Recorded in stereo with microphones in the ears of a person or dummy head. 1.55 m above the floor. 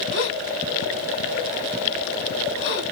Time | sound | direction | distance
0.1 | a gasp | 65° left (ahead or behind) | 3 m